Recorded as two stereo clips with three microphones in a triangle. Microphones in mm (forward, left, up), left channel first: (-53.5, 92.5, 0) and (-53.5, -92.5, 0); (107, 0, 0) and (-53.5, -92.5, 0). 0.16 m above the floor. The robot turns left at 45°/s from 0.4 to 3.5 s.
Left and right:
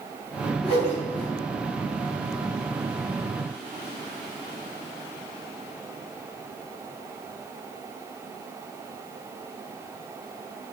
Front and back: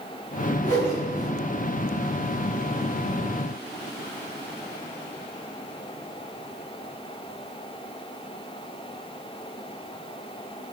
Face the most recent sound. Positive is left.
turn(degrees=-30)